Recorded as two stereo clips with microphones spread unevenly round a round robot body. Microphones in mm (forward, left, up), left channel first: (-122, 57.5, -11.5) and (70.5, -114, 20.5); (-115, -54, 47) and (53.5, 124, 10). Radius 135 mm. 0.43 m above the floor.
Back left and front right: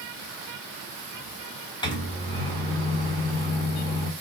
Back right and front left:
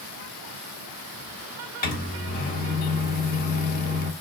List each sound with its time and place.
1.8 s a microwave: 175° right, 0.9 m